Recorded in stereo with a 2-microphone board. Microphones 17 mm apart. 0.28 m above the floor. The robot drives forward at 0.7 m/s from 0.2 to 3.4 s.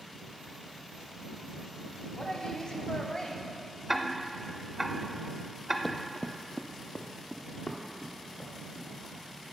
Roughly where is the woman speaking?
Left.